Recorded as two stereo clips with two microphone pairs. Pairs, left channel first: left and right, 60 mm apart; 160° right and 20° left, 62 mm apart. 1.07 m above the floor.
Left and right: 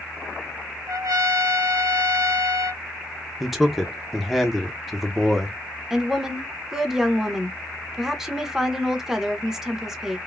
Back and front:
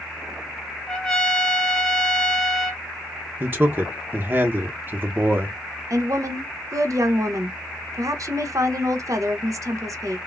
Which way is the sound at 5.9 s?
5° right.